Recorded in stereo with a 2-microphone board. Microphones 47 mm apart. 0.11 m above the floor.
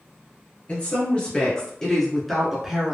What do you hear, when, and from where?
0.7 s a woman speaking: 30° left (ahead or behind), 1.8 m; by 3.0 s 15° right (ahead or behind), 1.1 m